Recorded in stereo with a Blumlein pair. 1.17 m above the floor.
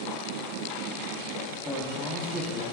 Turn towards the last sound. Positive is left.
turn(degrees=0)